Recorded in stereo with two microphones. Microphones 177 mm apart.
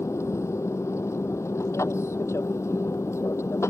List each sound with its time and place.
0.0 s an aircraft: 15° left (ahead or behind)